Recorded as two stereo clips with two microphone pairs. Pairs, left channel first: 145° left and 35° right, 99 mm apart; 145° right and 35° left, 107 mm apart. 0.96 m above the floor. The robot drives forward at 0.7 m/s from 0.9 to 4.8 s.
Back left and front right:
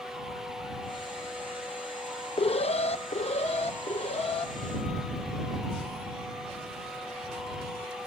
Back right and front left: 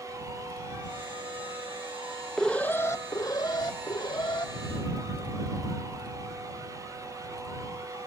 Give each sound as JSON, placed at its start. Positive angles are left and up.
{"t": 2.4, "sound": "an alarm", "azimuth_deg": 130, "distance_m": 0.6}